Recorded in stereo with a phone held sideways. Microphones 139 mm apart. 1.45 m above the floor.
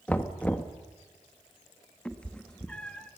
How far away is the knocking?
About 1.2 m.